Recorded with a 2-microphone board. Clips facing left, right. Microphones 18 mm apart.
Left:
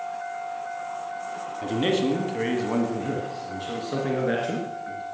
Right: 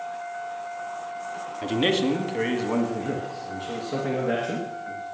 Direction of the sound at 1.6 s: 25° right (ahead or behind).